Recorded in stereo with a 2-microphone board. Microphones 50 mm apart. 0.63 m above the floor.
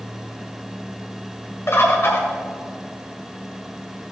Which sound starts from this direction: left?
A bird, at 1.7 s.